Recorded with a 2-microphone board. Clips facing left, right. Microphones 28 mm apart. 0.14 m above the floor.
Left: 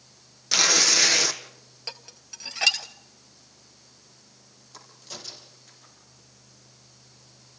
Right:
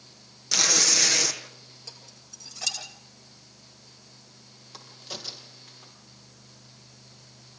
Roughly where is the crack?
Right.